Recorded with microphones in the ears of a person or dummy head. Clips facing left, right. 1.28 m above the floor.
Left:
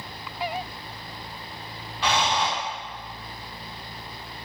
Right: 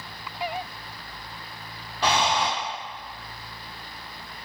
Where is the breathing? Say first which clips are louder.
Right 1 dB; 40° right (ahead or behind), 1.0 m.